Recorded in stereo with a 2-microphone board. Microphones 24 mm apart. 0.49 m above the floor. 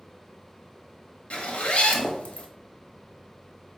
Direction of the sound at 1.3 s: 65° left (ahead or behind).